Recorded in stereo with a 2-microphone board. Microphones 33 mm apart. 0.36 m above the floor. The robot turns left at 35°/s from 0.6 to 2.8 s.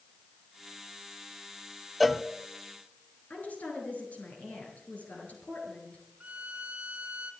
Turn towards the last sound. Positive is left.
turn(degrees=-50)  # may be behind; listen again after turning